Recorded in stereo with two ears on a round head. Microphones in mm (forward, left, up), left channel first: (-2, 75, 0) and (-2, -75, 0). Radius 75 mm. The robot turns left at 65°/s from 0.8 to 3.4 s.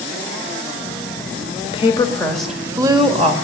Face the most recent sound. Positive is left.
turn(degrees=-65)